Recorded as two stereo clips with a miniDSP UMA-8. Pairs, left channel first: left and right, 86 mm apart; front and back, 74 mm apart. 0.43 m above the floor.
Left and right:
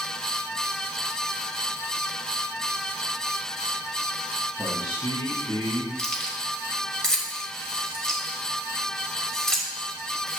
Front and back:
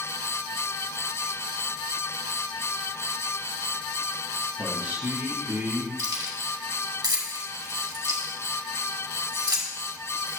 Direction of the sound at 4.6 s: 120° left.